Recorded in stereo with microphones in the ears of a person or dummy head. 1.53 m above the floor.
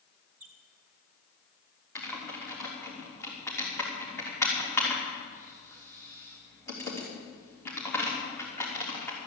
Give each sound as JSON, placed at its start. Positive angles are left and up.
{"t": 0.4, "sound": "a squeak", "side_deg": -10, "distance_m": 1.7}
{"t": 1.9, "sound": "typing on a keyboard", "side_deg": 15, "distance_m": 3.5}